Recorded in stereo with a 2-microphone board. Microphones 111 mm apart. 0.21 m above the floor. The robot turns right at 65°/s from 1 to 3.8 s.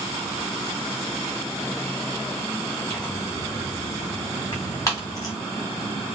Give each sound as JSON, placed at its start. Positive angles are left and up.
{"t": 2.9, "sound": "tearing paper", "side_deg": 10, "distance_m": 1.5}